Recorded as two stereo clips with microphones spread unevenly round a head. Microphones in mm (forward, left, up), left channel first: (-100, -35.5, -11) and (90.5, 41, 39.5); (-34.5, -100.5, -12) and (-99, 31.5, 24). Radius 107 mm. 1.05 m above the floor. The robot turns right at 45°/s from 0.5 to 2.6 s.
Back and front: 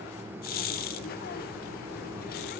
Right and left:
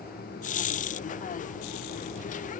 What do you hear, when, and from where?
Only background noise.